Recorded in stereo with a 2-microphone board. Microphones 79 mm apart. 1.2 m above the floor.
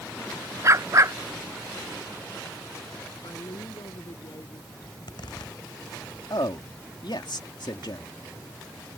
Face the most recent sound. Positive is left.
turn(degrees=70)  # may be behind; listen again after turning